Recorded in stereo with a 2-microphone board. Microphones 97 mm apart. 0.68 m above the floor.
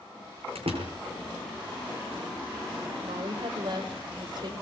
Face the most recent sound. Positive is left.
turn(degrees=-50)  # may be behind; listen again after turning